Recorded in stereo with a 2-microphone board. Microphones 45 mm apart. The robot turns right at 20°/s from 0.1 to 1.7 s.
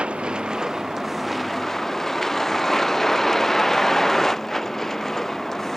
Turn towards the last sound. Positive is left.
turn(degrees=5)